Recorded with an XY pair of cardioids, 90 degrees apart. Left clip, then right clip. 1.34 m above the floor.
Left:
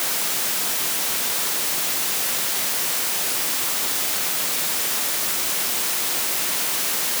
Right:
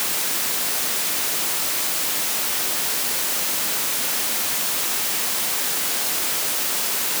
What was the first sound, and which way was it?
Only background noise.